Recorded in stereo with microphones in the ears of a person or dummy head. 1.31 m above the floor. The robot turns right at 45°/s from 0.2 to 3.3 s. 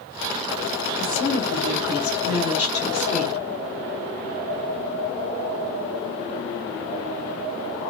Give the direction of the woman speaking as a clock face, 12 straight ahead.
9 o'clock.